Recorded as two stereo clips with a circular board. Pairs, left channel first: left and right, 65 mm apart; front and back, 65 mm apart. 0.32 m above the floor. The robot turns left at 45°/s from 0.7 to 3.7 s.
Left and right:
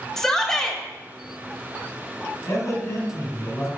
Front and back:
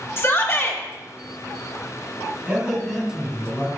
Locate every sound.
0.2 s a shout: 15° left, 1.1 m; by 0.8 s 10° left, 1.1 m
2.5 s a man speaking: 115° left, 2.5 m; by 3.7 s 55° left, 2.5 m